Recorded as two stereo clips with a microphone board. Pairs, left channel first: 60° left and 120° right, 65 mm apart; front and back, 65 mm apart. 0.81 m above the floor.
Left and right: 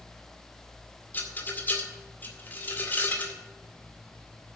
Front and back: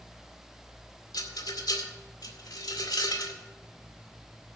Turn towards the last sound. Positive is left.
turn(degrees=0)